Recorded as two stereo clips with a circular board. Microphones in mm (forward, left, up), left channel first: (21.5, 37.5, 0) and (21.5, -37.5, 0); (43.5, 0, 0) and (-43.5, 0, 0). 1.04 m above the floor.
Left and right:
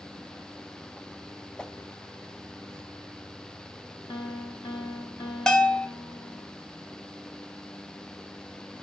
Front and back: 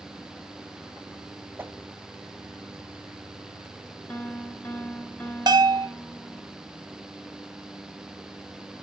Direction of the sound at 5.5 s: 170° left.